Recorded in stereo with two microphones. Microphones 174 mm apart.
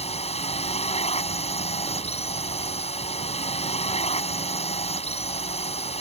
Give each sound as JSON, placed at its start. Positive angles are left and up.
{"t": 0.0, "sound": "a drone", "side_deg": 35}